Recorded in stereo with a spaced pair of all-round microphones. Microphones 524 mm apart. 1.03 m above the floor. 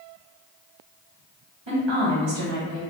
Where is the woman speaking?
55° right (ahead or behind), 1.2 m.